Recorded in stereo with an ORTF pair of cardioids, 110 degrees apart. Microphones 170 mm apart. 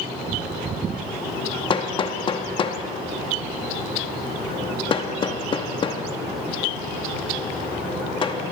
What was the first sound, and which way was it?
Hammering, 30° left.